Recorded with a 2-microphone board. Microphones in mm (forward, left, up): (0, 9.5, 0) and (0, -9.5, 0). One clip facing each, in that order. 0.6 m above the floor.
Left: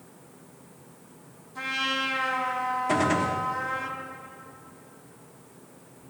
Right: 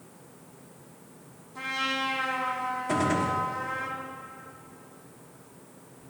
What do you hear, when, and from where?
1.6 s a trumpet: centre (ahead or behind), 2.5 m
2.9 s a gunshot: 20° left (ahead or behind), 1.2 m